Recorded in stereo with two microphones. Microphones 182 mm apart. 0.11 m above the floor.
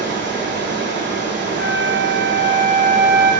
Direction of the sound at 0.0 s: 80° right.